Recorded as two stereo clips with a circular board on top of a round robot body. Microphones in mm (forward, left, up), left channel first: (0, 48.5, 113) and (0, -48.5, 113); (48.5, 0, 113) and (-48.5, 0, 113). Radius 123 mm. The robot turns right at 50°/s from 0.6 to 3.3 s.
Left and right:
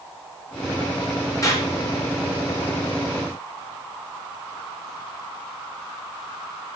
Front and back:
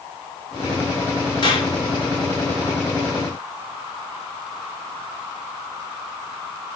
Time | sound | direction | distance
1.4 | a clap | 35° left | 7.5 m